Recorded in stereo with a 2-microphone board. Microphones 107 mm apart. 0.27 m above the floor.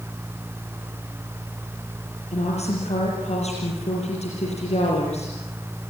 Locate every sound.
2.3 s a woman speaking: 80° left, 6 m